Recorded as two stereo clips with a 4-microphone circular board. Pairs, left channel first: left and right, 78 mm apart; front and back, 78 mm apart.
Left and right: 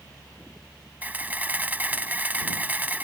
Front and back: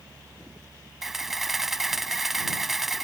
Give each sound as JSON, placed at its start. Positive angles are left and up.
{"t": 1.0, "sound": "a camera shutter", "azimuth_deg": -100}